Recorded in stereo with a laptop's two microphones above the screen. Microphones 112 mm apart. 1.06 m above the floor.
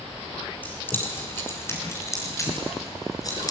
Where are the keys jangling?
15° left (ahead or behind), 6.5 m; by 3.5 s 35° left (ahead or behind), 9.5 m.